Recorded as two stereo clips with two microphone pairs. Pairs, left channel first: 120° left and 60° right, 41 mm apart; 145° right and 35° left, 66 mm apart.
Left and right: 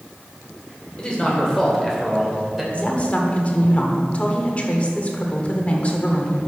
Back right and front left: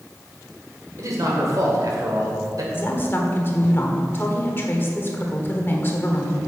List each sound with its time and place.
1.0 s a man speaking: 55° left, 2.5 m; by 2.6 s 25° left, 2.5 m
2.7 s a woman speaking: 165° left, 1.4 m